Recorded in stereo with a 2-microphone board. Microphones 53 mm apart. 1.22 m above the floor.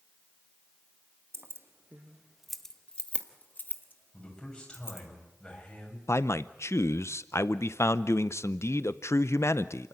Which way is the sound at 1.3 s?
55° right (ahead or behind).